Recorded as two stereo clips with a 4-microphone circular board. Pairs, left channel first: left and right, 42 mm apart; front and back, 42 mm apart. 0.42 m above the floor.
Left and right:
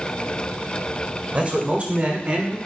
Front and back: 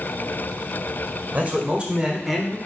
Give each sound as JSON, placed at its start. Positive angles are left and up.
{"t": 1.3, "sound": "a man speaking", "azimuth_deg": -140, "distance_m": 1.6}